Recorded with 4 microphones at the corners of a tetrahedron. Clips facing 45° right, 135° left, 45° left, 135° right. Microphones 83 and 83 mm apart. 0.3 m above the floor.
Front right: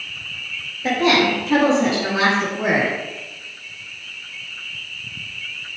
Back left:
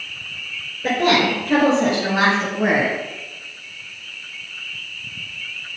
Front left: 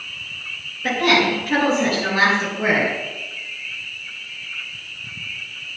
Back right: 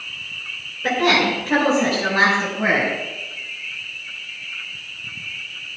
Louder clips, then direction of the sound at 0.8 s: Even, even; 160° left.